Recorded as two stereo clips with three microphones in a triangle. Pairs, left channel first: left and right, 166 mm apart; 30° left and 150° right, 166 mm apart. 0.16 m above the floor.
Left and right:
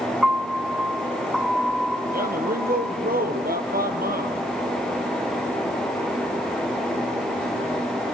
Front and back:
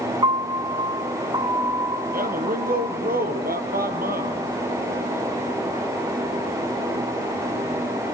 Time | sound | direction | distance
0.2 | a piano | 175° right | 1.1 m
2.1 | a man speaking | 120° right | 4 m